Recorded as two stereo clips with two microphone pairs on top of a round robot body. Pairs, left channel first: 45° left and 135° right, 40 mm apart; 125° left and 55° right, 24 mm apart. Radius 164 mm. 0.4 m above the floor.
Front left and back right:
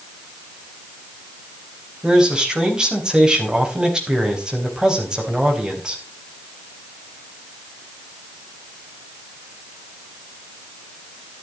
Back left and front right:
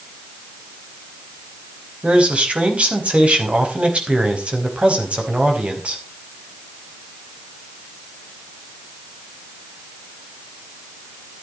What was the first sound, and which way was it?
A man speaking, 65° right.